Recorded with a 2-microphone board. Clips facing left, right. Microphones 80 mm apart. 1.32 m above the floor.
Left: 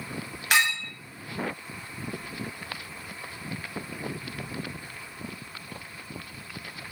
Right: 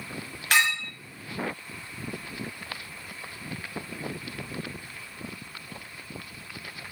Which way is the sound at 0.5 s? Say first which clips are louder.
Even; 10° left (ahead or behind).